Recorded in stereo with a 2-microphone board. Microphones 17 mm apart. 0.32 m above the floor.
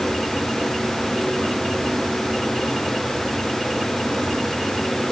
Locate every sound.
Only background noise.